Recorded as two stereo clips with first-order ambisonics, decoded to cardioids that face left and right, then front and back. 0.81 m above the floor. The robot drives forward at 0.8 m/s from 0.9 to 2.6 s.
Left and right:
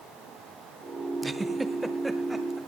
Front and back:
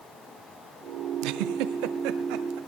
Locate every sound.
1.2 s a giggle: 165° right, 0.6 m; by 2.6 s 175° right, 1.7 m